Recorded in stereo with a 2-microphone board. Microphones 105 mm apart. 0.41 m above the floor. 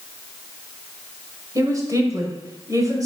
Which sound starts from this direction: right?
A woman speaking, at 1.6 s.